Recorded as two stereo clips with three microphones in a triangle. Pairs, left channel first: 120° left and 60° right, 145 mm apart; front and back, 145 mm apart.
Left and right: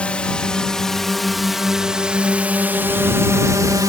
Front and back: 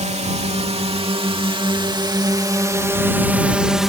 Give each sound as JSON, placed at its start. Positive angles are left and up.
{"t": 0.0, "sound": "a drone", "azimuth_deg": -160}